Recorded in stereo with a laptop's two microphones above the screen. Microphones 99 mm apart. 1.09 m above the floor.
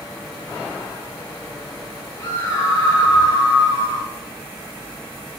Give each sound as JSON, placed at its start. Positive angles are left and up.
{"t": 2.2, "sound": "a scream", "side_deg": 30, "distance_m": 5.5}